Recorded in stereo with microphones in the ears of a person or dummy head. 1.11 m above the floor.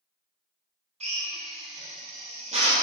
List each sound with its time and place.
1.0 s a drill: 35° right (ahead or behind), 1.2 m